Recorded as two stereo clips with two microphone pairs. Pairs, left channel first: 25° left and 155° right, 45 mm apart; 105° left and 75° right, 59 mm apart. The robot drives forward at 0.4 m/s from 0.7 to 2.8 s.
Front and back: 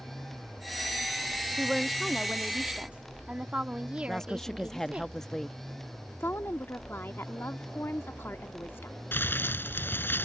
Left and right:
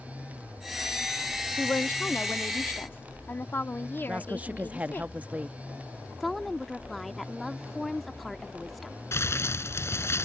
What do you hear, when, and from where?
1.6 s a woman speaking: 115° left; by 5.1 s 150° left
4.1 s a woman speaking: 40° right
6.2 s a woman speaking: 25° left
9.1 s crumpling: 65° left